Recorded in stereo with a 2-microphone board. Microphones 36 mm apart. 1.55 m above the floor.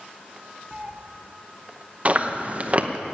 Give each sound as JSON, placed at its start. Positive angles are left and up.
{"t": 0.7, "sound": "a cat meowing", "side_deg": -30, "distance_m": 0.8}
{"t": 2.0, "sound": "chewing", "side_deg": -35, "distance_m": 0.7}